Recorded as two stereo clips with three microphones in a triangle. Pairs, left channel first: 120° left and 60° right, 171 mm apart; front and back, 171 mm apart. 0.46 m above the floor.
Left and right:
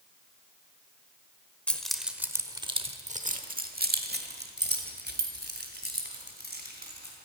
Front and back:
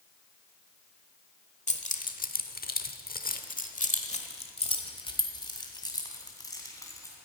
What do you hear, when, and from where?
1.7 s keys jangling: 40° left, 1.1 m; by 7.2 s 70° right, 3 m